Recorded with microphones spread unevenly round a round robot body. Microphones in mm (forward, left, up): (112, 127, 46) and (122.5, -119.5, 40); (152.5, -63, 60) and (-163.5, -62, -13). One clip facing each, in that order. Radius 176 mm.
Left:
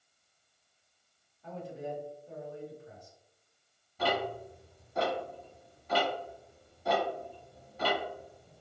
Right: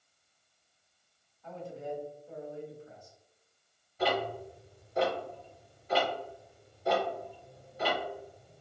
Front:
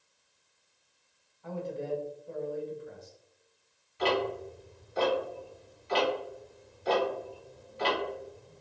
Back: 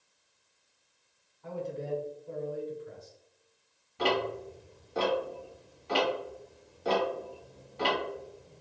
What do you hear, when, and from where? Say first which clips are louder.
1.4 s a man speaking: even, front 1 dB; 160° left, 1.8 m
4.0 s ticking: right 1 dB, front 1 dB; 135° left, 1.1 m